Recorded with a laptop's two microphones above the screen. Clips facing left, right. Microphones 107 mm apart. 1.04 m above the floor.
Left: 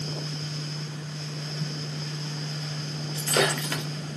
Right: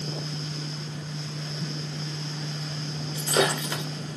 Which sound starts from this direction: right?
A fan, at 0.0 s.